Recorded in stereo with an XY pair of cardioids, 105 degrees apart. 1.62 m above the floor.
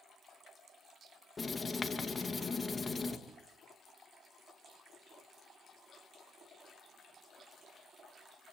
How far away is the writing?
About 2.5 m.